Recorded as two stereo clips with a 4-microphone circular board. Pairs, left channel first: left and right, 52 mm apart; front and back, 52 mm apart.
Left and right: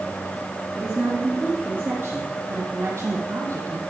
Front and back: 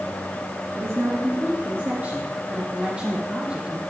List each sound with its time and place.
0.8 s a woman speaking: 160° right, 3 m; by 3.8 s 110° right, 2.5 m